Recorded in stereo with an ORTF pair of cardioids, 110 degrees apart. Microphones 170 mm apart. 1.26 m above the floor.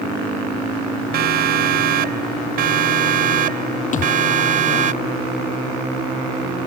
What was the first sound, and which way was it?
A siren, 65° right.